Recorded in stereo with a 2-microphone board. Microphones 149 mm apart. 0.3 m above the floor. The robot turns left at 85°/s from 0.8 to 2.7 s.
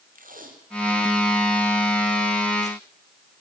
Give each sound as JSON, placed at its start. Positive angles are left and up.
{"t": 0.1, "sound": "tape being pulled", "side_deg": -75, "distance_m": 4.0}